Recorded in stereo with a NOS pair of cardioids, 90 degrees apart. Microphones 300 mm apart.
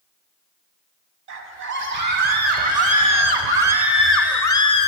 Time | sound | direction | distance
1.3 | a scream | 70° right | 1.7 m